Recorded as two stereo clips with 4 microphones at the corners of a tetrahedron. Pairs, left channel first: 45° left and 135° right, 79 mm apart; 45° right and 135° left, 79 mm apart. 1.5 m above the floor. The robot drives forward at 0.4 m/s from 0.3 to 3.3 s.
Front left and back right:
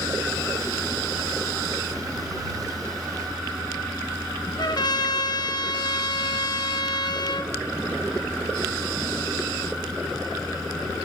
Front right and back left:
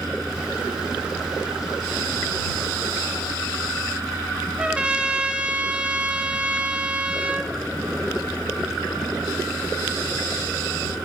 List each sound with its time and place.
4.6 s a trumpet: 60° left, 0.6 m